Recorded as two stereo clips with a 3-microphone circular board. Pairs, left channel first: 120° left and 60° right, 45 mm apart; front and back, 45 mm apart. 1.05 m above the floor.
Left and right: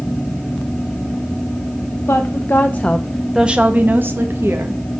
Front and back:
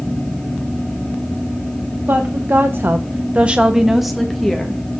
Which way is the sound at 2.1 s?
145° left.